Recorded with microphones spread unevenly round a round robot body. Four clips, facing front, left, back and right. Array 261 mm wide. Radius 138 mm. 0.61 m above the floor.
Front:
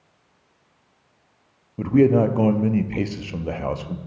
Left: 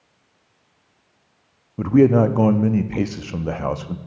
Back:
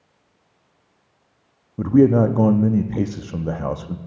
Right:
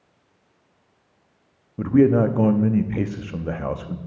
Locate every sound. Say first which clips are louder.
1.8 s a man speaking: left 2 dB, back 2 dB; 155° left, 0.6 m